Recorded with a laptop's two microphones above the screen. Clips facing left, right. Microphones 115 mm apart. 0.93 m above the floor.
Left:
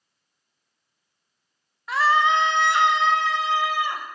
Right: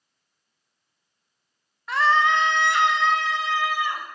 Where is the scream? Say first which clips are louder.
Left 1 dB; centre (ahead or behind), 0.8 m; by 4.0 s 25° left (ahead or behind), 2.5 m.